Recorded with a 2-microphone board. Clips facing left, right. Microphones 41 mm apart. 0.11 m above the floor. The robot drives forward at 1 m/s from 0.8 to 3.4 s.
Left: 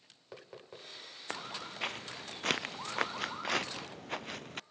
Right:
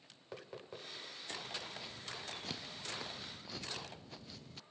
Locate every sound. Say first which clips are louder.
1.3 s footsteps: left 5 dB; 65° left (ahead or behind); by 4.6 s 60° left (ahead or behind)